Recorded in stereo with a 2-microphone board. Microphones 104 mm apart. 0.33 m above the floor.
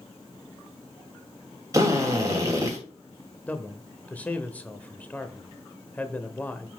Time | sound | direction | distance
1.7 | a drill | 30° right (ahead or behind) | 2 m
3.5 | a man speaking | 15° left (ahead or behind) | 0.8 m